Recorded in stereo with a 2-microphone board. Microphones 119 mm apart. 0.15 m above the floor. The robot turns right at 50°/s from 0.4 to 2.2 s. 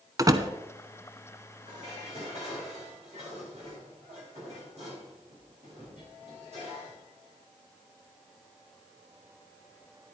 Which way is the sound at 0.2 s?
30° right (ahead or behind).